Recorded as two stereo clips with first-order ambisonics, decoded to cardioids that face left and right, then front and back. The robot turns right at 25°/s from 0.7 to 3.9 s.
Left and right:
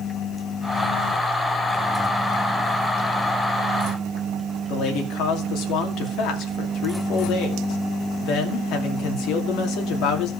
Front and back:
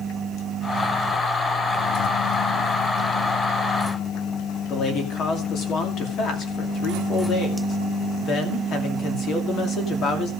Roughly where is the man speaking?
Ahead left.